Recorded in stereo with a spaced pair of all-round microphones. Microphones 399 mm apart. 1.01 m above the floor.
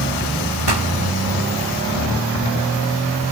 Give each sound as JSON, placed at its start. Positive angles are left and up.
{"t": 0.7, "sound": "a pop", "side_deg": -75, "distance_m": 1.4}